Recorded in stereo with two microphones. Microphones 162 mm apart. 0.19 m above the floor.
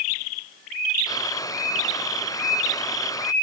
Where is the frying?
20° left (ahead or behind).